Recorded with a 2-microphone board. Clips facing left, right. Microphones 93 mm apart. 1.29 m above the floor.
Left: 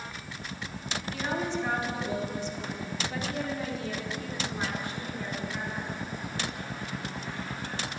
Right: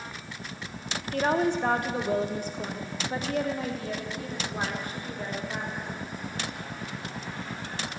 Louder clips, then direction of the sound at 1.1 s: Right 7 dB; 55° right (ahead or behind).